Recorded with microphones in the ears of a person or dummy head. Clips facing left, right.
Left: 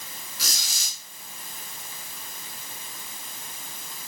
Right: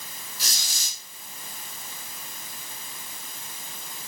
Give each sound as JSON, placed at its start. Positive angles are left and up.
{"t": 0.4, "sound": "a squeak", "side_deg": 60, "distance_m": 2.0}